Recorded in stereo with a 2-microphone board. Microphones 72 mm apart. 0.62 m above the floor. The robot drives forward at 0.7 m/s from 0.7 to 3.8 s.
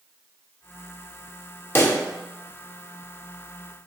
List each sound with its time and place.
1.8 s a pop: 35° left (ahead or behind), 0.8 m; by 2.0 s 30° left (ahead or behind), 1.0 m